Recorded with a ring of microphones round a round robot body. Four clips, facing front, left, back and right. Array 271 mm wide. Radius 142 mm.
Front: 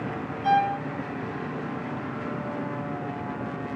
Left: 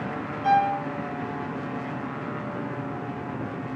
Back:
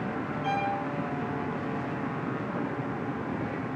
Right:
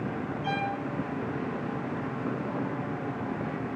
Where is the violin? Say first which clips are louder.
Left 12 dB, front 8 dB; 45° left, 7 m.